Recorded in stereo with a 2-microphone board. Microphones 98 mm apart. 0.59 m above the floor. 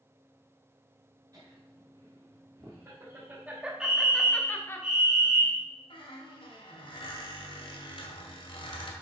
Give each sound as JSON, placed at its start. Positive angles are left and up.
{"t": 1.3, "sound": "laughter", "side_deg": -40, "distance_m": 2.0}
{"t": 3.8, "sound": "a fire alarm", "side_deg": -10, "distance_m": 1.6}
{"t": 5.9, "sound": "a squeak", "side_deg": 70, "distance_m": 1.7}